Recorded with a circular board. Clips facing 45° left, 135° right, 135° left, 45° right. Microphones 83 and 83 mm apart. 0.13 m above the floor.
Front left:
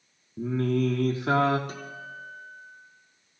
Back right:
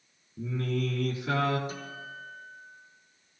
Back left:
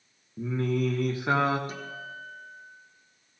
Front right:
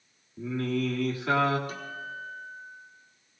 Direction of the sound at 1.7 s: 70° left.